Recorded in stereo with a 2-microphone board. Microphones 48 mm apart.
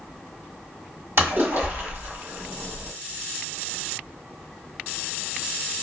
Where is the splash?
60° right (ahead or behind), 1.4 m.